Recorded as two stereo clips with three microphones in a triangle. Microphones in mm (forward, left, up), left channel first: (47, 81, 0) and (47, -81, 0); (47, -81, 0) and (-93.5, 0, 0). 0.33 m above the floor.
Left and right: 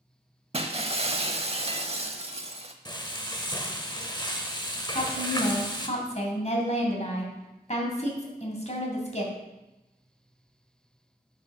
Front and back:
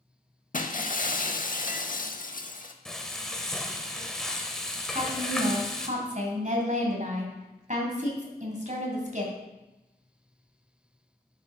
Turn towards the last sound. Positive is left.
turn(degrees=125)